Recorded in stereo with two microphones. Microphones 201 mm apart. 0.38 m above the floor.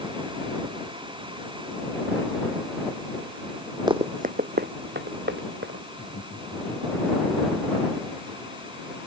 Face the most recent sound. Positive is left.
turn(degrees=80)